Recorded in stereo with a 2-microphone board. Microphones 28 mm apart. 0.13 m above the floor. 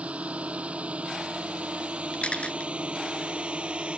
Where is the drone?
55° right (ahead or behind); by 4.0 s 45° right (ahead or behind).